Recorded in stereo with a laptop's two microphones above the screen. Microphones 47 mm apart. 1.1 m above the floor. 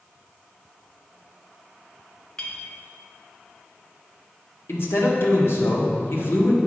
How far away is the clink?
About 0.8 m.